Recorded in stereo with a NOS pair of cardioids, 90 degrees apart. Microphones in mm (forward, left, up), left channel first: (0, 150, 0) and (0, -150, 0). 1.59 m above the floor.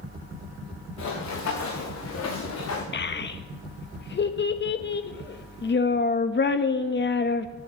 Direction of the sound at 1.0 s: 70° left.